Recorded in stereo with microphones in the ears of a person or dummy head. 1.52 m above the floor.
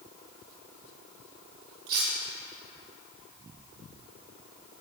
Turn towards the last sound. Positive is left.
turn(degrees=-50)  # may be behind; listen again after turning